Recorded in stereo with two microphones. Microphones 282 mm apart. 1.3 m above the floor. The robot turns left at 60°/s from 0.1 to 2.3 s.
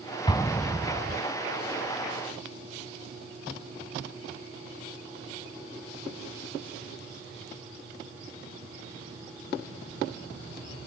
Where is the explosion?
15° left (ahead or behind); by 1.2 s 20° right (ahead or behind).